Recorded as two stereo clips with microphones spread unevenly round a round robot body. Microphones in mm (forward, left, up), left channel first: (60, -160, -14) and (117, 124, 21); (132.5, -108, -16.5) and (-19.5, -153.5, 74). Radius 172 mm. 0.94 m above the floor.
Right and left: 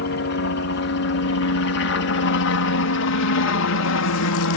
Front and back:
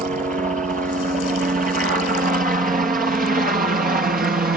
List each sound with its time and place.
0.0 s a helicopter: 105° right; by 4.6 s 115° right